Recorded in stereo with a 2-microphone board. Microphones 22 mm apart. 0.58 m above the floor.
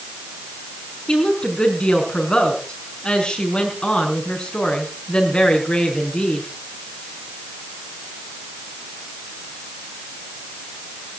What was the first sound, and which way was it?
A woman speaking, 40° left (ahead or behind).